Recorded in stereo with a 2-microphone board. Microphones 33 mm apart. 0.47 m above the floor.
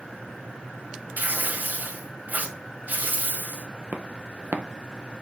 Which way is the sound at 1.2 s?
60° right (ahead or behind).